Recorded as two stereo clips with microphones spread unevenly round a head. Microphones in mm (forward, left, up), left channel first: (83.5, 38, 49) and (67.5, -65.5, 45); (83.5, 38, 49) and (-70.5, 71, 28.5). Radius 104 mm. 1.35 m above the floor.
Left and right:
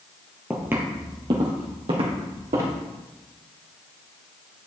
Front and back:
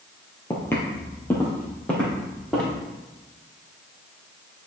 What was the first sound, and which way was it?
Footsteps, 25° right.